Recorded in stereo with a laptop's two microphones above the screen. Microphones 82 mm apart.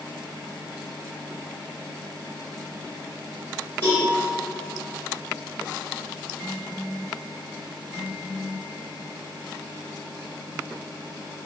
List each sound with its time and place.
3.8 s a cowbell: 30° left (ahead or behind), 1.6 m